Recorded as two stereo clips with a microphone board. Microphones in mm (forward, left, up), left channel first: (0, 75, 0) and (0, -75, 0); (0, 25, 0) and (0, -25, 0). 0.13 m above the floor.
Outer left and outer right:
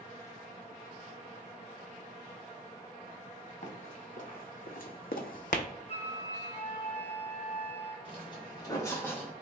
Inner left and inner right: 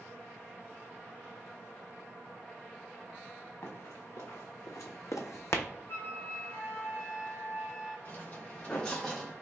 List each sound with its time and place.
3.6 s running footsteps: 50° left (ahead or behind), 1.4 m
5.9 s a flute: 45° left (ahead or behind), 1.1 m
8.1 s footsteps: 35° left (ahead or behind), 1.5 m; by 9.3 s 5° left (ahead or behind), 1.1 m